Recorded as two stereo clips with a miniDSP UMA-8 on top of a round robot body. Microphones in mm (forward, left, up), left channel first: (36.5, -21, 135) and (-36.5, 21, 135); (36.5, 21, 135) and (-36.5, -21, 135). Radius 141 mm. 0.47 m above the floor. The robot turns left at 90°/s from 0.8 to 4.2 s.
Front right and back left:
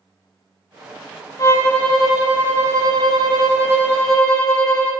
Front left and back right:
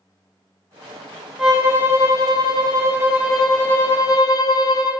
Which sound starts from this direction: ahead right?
A violin, at 1.4 s.